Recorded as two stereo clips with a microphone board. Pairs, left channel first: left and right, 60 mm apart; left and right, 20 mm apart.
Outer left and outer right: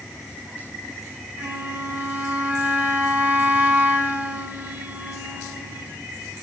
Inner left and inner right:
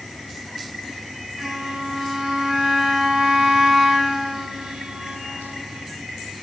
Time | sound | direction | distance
1.4 | a flute | 35° right (ahead or behind) | 2.5 m